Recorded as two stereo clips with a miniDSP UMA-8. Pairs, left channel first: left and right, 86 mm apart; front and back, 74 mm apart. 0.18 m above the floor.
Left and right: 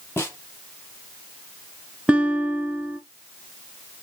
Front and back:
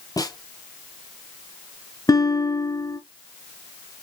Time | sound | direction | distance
0.2 | a snare drum | 30° left | 4.5 m
2.1 | a guitar | 15° right | 1.9 m